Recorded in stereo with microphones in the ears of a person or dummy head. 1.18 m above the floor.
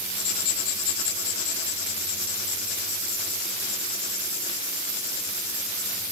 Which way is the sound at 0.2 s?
60° left (ahead or behind).